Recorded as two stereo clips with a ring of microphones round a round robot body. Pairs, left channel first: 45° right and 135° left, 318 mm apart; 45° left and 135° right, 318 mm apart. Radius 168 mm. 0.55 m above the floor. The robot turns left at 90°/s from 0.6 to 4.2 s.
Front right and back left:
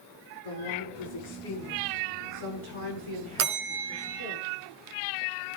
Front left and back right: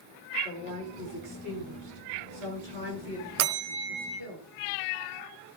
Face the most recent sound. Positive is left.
turn(degrees=115)